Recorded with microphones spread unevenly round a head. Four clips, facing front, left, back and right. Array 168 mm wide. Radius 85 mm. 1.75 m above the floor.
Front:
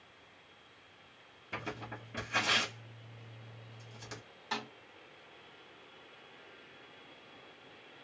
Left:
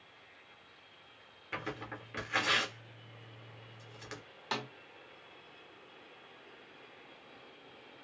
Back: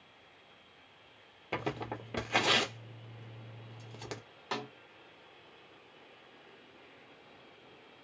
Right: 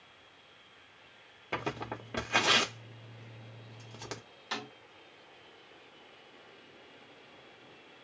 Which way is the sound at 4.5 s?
130° left.